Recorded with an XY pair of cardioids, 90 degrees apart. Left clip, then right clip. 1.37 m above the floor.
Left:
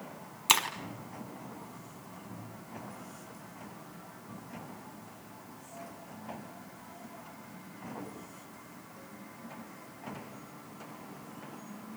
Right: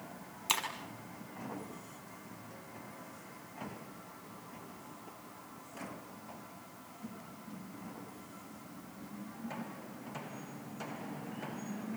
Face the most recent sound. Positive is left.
turn(degrees=55)